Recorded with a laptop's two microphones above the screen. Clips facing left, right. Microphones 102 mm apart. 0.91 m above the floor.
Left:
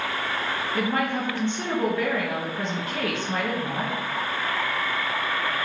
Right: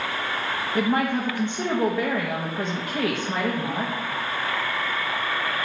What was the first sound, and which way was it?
A woman speaking, 15° right (ahead or behind).